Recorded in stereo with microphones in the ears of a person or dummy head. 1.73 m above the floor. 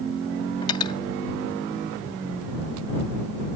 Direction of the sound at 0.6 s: 15° left (ahead or behind).